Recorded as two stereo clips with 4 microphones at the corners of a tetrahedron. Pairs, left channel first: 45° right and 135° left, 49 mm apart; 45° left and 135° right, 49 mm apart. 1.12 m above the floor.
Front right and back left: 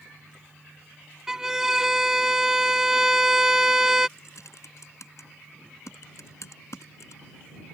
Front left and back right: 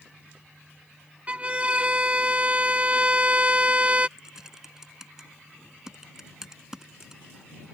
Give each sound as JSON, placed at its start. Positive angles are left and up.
{"t": 1.3, "sound": "a violin", "azimuth_deg": -160}
{"t": 4.2, "sound": "typing on a keyboard", "azimuth_deg": -55}